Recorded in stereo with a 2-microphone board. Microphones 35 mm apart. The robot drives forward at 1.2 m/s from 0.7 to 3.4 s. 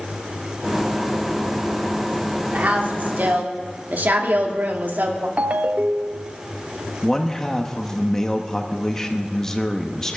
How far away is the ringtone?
About 0.6 m.